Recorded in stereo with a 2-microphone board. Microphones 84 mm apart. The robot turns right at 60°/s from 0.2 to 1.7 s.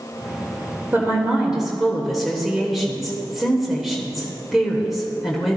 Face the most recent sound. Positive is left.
turn(degrees=-5)